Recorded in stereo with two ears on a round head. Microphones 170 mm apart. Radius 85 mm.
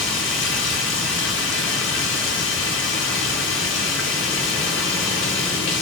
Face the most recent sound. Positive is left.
turn(degrees=75)  # may be behind; listen again after turning